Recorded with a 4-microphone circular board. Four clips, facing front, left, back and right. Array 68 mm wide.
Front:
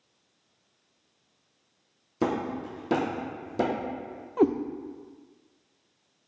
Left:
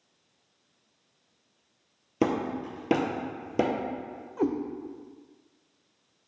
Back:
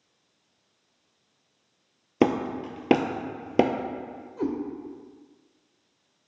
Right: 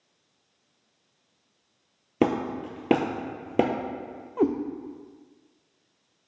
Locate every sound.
2.2 s hammering: 155° right, 0.6 m
4.4 s a cat meowing: 30° right, 0.6 m